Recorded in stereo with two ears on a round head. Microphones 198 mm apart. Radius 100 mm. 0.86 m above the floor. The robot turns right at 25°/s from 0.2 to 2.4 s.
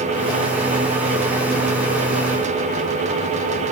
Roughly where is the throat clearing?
No throat clearing in this recording.